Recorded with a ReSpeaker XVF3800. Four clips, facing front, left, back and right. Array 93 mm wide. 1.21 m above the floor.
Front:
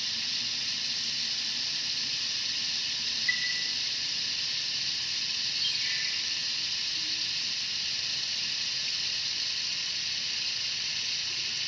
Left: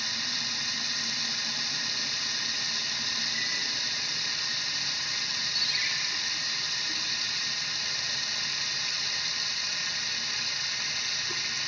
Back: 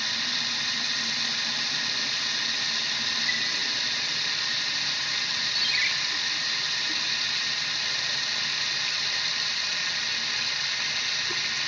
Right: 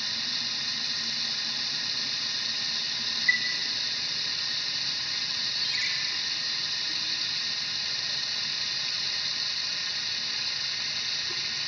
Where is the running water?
170° left, 1.1 m.